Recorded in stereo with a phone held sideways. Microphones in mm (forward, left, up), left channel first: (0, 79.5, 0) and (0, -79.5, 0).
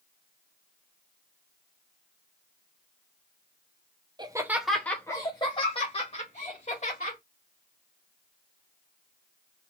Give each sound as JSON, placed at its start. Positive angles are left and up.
{"t": 4.2, "sound": "laughter", "side_deg": -30, "distance_m": 0.6}